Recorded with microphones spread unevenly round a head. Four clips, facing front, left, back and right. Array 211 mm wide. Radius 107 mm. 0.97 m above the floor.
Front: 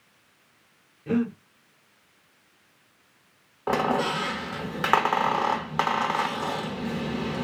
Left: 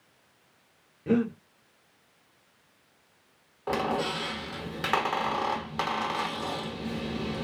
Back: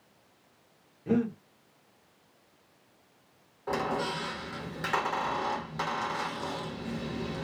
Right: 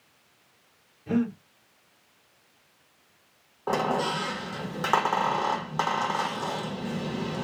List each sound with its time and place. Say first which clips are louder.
1.1 s breathing: left 1 dB, front 2 dB; 70° left, 1.4 m
3.7 s a squeak: right 2 dB, front 7 dB; 20° right, 0.7 m